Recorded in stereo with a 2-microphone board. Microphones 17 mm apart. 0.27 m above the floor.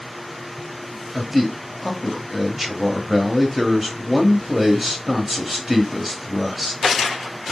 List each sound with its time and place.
1.1 s a man speaking: 15° right (ahead or behind), 0.9 m